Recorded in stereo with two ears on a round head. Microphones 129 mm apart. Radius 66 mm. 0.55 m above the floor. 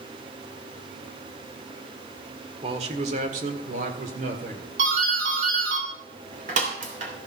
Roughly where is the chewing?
No chewing in this recording.